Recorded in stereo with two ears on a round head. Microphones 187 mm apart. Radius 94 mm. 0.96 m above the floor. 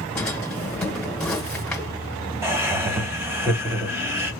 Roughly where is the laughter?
Centre.